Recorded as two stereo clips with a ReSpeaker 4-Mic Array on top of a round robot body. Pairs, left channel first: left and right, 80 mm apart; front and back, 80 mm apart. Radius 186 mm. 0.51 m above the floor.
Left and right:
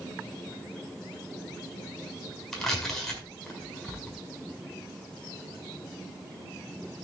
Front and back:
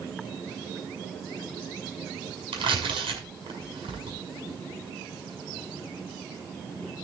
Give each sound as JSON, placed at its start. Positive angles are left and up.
{"t": 2.5, "sound": "tearing paper", "azimuth_deg": 180, "distance_m": 5.5}